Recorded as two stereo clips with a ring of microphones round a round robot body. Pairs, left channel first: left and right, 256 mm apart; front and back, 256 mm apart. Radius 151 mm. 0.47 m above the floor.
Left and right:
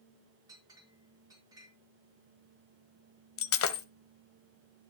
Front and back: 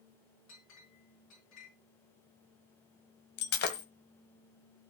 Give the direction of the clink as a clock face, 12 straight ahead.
12 o'clock.